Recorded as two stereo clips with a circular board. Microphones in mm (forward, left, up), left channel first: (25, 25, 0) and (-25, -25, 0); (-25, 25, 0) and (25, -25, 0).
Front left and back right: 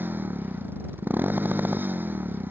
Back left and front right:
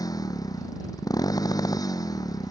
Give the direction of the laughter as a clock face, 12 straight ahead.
I don't hear laughter.